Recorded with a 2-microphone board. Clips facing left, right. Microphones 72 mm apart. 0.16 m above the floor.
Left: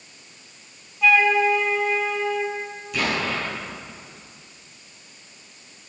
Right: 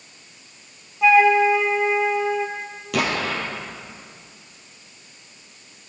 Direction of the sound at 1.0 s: 25° right (ahead or behind).